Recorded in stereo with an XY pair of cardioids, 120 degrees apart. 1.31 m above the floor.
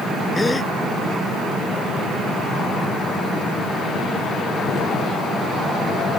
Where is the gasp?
20° left.